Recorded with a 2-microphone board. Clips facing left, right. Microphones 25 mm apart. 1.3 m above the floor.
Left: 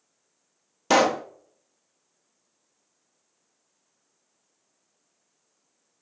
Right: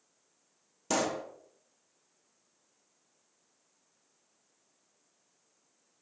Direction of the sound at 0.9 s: 40° left (ahead or behind).